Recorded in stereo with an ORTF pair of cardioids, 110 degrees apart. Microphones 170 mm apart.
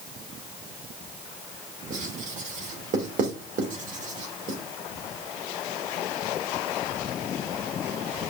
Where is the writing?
50° right, 2.5 m.